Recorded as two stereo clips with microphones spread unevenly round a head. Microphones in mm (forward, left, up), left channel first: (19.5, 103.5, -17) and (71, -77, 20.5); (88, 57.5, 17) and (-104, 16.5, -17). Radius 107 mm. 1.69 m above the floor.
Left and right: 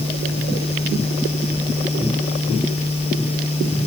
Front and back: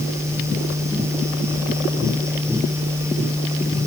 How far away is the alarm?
No alarm in this recording.